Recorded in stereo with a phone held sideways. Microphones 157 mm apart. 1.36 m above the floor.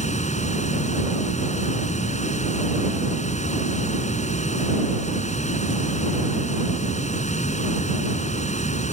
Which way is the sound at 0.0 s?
50° left (ahead or behind).